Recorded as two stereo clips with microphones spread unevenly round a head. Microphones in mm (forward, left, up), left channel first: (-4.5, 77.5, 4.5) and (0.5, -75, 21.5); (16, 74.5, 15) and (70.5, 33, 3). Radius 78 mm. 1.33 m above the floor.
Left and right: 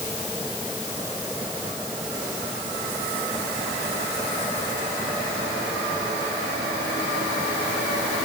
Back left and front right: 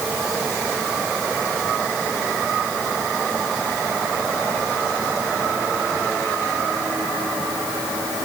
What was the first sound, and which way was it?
Only background noise.